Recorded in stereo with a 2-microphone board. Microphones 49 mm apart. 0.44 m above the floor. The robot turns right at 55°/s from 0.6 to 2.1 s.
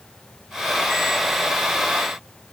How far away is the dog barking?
I don't hear a dog barking.